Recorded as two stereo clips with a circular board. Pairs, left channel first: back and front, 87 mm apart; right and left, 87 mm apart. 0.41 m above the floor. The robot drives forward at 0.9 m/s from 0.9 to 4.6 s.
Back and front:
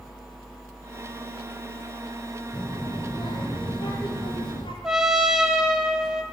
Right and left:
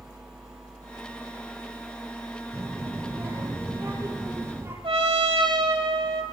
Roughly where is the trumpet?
Left.